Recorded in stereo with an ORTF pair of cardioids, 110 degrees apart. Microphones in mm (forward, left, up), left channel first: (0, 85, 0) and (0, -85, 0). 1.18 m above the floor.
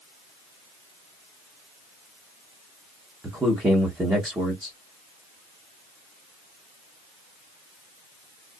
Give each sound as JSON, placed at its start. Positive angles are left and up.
{"t": 3.2, "sound": "a man speaking", "azimuth_deg": -15, "distance_m": 1.2}